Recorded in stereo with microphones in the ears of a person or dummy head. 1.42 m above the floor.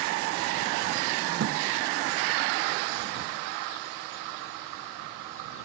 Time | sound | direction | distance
1.4 | a thud | 70° right (ahead or behind) | ?